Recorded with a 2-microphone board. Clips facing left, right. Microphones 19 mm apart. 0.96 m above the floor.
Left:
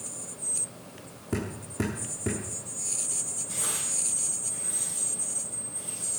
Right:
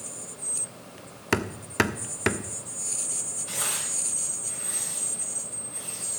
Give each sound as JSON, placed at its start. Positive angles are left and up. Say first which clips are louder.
{"t": 1.3, "sound": "hammering", "louder": "right 7 dB", "side_deg": -85, "distance_m": 1.1}
{"t": 3.5, "sound": "tearing paper", "louder": "right 3 dB", "side_deg": -75, "distance_m": 6.5}